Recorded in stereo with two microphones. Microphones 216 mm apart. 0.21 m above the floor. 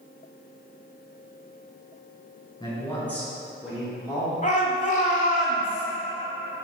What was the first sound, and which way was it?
A man speaking, 20° left (ahead or behind).